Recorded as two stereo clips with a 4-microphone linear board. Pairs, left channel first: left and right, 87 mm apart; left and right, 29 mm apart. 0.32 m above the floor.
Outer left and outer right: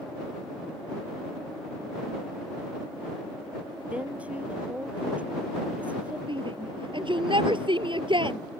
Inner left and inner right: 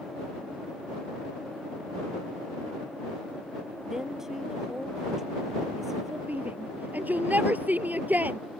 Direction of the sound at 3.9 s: 15° right (ahead or behind).